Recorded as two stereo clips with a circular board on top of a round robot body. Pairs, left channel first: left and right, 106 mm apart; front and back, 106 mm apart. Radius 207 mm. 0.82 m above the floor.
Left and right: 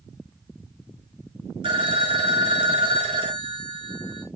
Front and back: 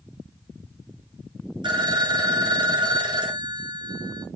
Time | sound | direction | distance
1.6 | a phone ringing | 130° right | 0.9 m